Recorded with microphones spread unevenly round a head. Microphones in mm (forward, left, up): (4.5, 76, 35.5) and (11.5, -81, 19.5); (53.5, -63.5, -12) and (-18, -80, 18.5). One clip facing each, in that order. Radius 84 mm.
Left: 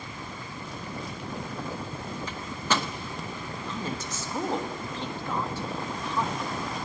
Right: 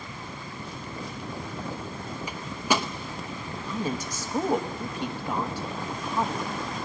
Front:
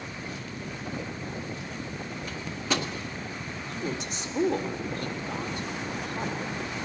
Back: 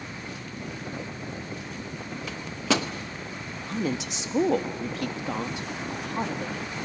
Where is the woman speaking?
170° right, 1.4 m.